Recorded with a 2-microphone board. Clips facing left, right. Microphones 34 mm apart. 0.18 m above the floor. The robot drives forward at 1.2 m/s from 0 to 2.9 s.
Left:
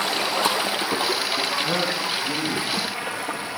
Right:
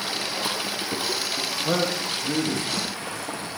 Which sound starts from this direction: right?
A man speaking, at 1.6 s.